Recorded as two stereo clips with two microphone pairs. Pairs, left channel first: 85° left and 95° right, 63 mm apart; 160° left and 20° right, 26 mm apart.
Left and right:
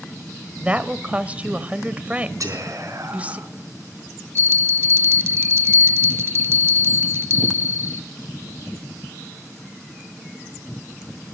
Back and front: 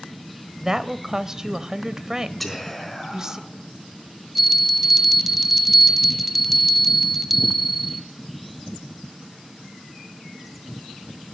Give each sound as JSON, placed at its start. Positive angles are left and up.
{"t": 0.6, "sound": "a woman speaking", "azimuth_deg": -60, "distance_m": 1.0}
{"t": 2.4, "sound": "whispering", "azimuth_deg": -115, "distance_m": 4.0}
{"t": 4.3, "sound": "a bell", "azimuth_deg": -100, "distance_m": 1.0}